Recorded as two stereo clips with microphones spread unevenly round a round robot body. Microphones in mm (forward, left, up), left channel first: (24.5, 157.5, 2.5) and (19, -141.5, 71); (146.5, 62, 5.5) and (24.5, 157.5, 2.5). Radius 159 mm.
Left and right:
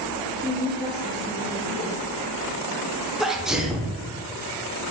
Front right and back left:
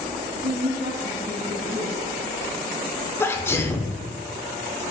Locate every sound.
0.4 s a woman speaking: 175° right, 3.5 m
3.2 s a sneeze: 20° left, 1.2 m